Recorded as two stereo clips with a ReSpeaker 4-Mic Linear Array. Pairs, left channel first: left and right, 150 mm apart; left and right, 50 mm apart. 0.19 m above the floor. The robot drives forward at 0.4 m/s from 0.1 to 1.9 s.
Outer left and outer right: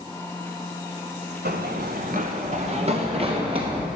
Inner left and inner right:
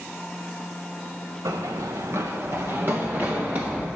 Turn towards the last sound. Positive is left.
turn(degrees=-30)  # may be behind; listen again after turning